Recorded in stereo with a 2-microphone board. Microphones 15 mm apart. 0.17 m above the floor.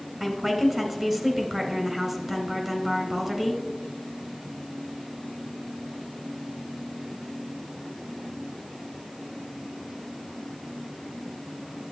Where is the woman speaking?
25° right (ahead or behind), 1.5 m.